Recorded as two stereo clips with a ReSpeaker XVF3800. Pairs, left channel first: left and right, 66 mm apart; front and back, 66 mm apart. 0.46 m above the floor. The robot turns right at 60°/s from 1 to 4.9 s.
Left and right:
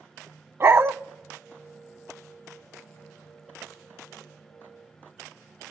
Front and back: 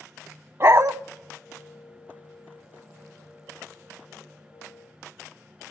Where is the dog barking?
135° right, 0.6 m.